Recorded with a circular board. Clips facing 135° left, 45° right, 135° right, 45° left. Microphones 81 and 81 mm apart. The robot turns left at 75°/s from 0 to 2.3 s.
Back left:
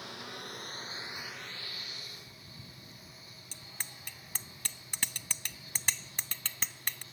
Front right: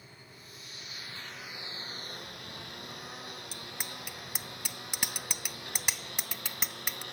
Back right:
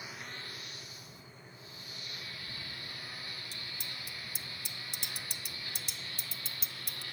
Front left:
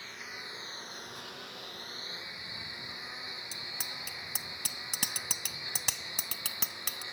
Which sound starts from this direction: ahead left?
A bicycle bell, at 3.5 s.